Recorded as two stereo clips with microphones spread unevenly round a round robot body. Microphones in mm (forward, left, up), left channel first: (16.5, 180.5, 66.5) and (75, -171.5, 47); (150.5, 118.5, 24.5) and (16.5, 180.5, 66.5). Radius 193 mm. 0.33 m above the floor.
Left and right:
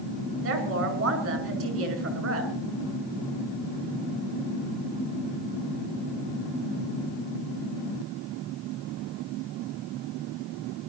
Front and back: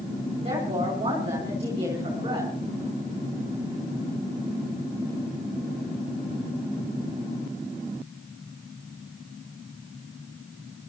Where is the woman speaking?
130° right, 5 m.